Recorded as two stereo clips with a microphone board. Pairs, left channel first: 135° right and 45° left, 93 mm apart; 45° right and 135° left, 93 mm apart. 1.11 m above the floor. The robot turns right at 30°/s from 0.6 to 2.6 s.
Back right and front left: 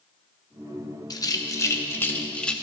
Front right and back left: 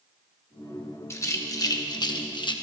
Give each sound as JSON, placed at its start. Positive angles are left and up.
{"t": 1.1, "sound": "a rattle", "azimuth_deg": -100, "distance_m": 0.8}